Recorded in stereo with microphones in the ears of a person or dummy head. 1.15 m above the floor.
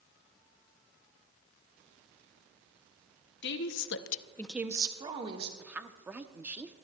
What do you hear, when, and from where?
3.4 s a woman speaking: 60° left (ahead or behind), 1.3 m; by 5.5 s 30° right (ahead or behind), 2.0 m
5.6 s a woman speaking: 10° right (ahead or behind), 0.8 m